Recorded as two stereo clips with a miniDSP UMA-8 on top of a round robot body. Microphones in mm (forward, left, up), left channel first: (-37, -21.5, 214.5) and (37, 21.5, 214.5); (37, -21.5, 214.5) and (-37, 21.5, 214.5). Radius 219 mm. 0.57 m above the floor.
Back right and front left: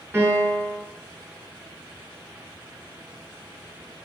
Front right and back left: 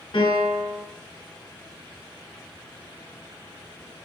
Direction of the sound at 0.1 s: 30° right.